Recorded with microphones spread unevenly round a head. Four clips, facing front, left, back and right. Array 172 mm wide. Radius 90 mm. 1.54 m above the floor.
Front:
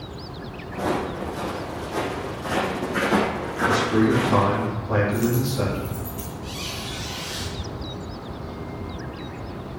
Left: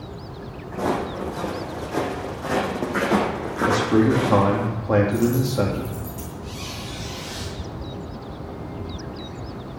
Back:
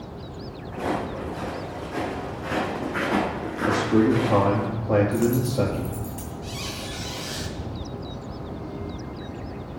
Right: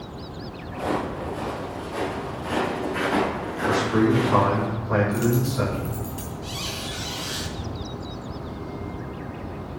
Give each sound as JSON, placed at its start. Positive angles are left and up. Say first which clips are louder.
{"t": 0.7, "sound": "footsteps", "louder": "left 2 dB, front 2 dB", "azimuth_deg": 90, "distance_m": 5.0}
{"t": 3.7, "sound": "a man speaking", "louder": "left 2 dB, even", "azimuth_deg": 125, "distance_m": 3.0}
{"t": 5.1, "sound": "a dropped coin", "louder": "left 2 dB, back 1 dB", "azimuth_deg": 175, "distance_m": 3.0}
{"t": 6.4, "sound": "a squeak", "louder": "right 1 dB, even", "azimuth_deg": -145, "distance_m": 2.5}